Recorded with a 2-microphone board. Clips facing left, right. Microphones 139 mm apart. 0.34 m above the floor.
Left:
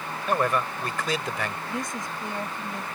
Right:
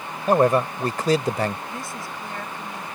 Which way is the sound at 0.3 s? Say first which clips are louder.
Right 7 dB; 40° right (ahead or behind).